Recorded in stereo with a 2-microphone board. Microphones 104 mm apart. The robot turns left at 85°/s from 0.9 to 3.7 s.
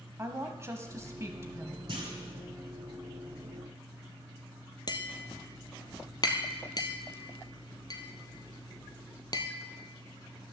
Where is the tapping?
45° left (ahead or behind), 1.0 m.